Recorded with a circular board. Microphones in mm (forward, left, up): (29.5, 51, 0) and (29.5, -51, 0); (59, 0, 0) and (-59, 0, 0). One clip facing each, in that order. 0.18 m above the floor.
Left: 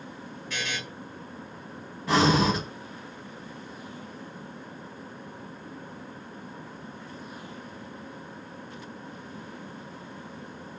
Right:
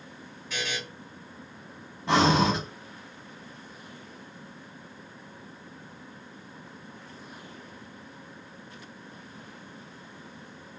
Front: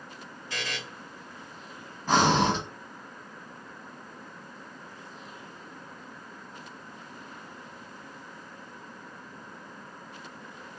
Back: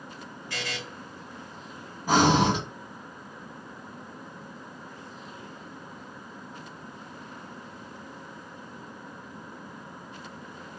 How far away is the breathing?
About 1.0 m.